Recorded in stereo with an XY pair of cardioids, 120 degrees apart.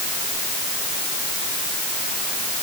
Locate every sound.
Only background noise.